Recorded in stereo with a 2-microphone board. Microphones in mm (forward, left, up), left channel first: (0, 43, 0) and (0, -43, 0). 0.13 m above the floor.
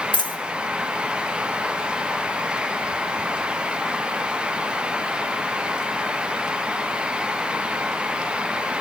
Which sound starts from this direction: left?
A dropped coin, at 0.1 s.